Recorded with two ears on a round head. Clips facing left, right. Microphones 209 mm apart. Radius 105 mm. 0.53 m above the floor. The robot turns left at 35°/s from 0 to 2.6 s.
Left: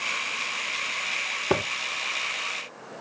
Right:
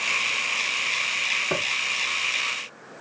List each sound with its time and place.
1.5 s footsteps: 55° left (ahead or behind), 0.8 m